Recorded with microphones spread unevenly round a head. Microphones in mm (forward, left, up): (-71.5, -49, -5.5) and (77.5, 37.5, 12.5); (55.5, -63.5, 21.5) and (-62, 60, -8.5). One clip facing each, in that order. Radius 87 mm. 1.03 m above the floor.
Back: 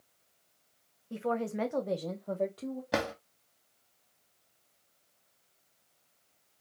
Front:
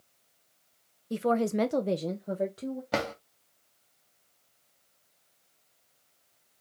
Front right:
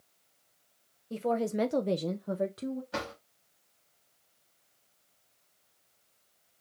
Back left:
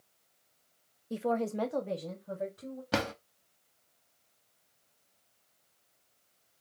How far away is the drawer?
About 1.0 m.